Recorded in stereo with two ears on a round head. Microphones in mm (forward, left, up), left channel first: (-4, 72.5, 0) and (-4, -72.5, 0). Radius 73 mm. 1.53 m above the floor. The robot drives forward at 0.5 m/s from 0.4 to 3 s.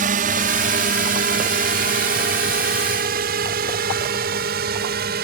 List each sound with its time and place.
0.0 s a drone: 50° right (ahead or behind); by 5.2 s 65° right (ahead or behind)